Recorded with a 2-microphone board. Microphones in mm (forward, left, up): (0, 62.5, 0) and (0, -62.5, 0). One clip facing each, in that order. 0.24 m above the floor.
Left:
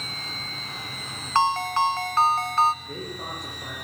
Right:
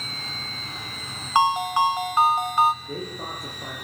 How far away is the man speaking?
About 6 m.